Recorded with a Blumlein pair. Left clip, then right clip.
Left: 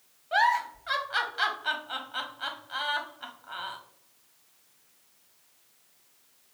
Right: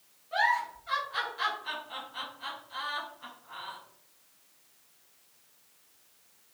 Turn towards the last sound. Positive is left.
turn(degrees=60)